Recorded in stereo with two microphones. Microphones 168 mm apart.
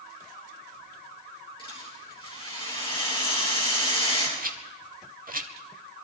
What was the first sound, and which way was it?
A rattle, 35° left (ahead or behind).